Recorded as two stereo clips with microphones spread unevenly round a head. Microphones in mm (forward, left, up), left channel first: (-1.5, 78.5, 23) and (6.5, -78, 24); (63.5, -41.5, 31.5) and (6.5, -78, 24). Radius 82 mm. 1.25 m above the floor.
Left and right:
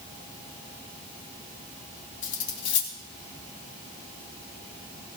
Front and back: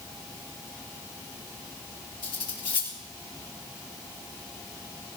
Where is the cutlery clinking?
80° left, 1.6 m.